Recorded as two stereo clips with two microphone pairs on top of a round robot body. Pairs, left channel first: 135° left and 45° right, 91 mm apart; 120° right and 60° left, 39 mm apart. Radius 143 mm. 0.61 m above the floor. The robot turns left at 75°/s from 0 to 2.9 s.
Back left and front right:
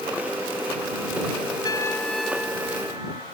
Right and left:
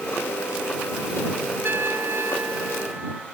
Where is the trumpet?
90° left; by 3.2 s 5° right.